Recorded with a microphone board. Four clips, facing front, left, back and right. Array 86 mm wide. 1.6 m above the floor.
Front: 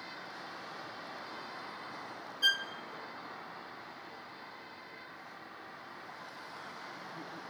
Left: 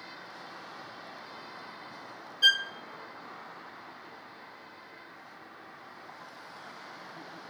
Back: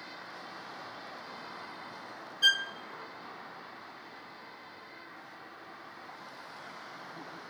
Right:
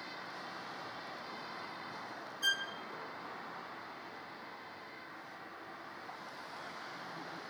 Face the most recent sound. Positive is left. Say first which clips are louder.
# left 9 dB, back 4 dB
turn(degrees=110)